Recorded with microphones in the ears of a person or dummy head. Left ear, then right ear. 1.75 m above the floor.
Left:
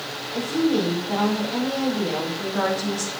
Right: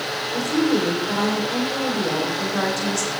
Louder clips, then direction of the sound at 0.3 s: Right 1 dB; 45° right (ahead or behind).